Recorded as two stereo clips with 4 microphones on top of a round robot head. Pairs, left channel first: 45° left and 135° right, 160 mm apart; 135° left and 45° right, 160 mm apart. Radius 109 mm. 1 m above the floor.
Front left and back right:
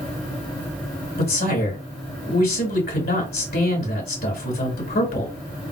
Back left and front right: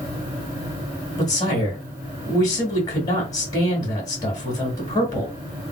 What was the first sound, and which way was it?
A man speaking, 70° left.